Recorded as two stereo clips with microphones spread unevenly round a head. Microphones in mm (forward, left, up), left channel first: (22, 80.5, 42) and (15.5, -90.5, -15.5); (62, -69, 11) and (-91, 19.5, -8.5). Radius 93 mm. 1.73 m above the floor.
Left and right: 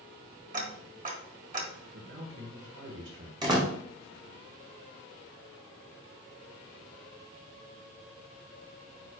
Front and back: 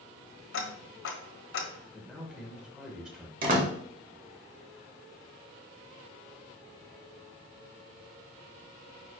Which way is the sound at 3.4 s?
165° right.